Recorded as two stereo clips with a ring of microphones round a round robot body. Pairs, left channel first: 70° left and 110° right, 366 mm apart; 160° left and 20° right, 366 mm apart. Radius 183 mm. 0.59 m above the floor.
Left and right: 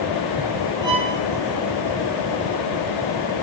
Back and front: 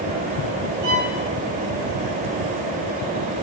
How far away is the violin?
About 4 m.